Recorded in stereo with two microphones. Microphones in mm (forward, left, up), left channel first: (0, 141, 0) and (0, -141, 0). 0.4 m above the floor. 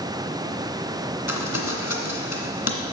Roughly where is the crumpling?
Left.